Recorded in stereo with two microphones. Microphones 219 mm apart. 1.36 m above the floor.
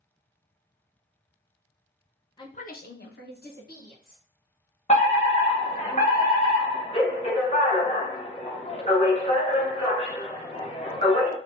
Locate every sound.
2.4 s a woman speaking: 20° left (ahead or behind), 0.5 m; by 4.2 s 40° left (ahead or behind), 1.6 m
4.9 s a fire alarm: 30° left (ahead or behind), 0.8 m